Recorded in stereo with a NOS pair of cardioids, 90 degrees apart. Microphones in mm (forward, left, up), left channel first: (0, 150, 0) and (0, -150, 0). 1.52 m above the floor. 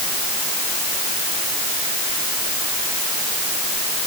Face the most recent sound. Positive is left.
No sound to turn to.